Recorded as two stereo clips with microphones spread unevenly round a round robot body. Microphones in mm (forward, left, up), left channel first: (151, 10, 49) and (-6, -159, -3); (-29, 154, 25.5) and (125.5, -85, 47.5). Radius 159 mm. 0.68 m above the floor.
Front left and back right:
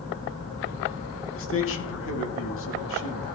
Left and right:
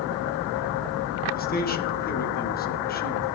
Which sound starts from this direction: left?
A man speaking, at 1.3 s.